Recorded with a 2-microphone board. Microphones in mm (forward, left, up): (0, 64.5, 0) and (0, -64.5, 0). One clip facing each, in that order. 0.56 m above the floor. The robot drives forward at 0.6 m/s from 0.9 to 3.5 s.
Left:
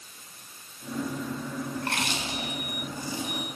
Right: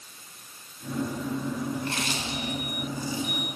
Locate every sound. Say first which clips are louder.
1.8 s chewing: even; 60° left (ahead or behind), 6 m; by 3.5 s 55° left (ahead or behind), 6.5 m